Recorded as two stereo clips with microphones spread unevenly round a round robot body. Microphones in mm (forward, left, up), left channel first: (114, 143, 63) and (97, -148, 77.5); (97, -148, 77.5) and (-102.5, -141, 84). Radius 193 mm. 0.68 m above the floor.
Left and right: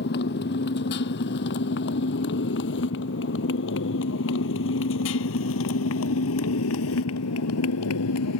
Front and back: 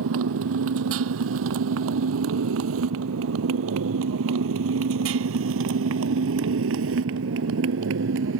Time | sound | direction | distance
0.0 | a motorcycle | 150° left | ?